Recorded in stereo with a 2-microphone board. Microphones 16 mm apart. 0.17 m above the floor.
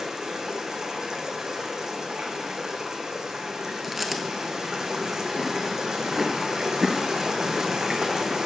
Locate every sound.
0.0 s running water: 35° right (ahead or behind), 1.0 m
3.8 s chewing: 10° right (ahead or behind), 0.6 m